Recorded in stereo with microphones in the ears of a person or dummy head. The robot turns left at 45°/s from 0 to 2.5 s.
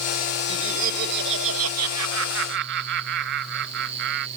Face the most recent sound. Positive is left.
turn(degrees=-120)